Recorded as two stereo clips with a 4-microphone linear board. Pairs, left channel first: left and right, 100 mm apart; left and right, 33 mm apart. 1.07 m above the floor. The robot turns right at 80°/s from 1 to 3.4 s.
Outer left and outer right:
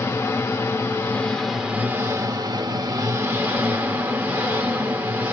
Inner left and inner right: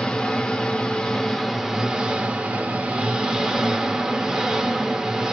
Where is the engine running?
140° left, 0.8 m; by 5.3 s 25° right, 0.8 m.